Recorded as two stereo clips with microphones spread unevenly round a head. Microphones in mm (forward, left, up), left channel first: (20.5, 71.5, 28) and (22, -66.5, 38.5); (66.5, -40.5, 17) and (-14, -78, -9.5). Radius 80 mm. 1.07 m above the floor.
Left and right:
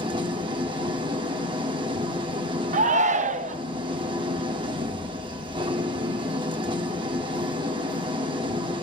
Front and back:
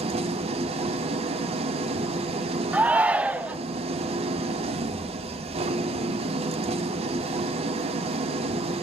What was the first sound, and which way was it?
An engine running, 150° right.